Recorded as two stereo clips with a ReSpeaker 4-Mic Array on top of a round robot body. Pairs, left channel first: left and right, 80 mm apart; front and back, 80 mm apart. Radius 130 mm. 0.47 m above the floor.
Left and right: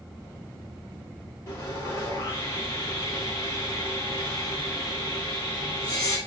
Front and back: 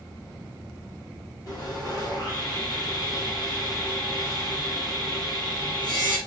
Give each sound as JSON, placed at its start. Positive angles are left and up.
{"t": 1.5, "sound": "sawing", "azimuth_deg": 35, "distance_m": 8.0}